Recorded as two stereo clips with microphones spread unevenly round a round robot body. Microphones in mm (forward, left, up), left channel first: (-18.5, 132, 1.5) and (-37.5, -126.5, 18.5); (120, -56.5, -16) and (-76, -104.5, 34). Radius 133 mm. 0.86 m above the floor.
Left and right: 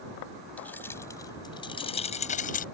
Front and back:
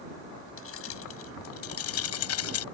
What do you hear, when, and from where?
0.6 s keys jangling: straight ahead; by 2.6 s 25° left